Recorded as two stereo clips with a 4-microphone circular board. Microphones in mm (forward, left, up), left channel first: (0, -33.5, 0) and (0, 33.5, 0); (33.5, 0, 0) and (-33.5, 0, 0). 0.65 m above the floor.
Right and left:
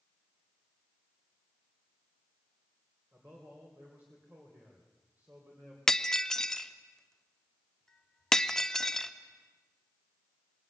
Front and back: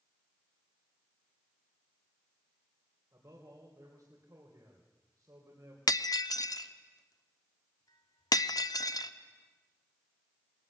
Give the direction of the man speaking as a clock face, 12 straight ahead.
7 o'clock.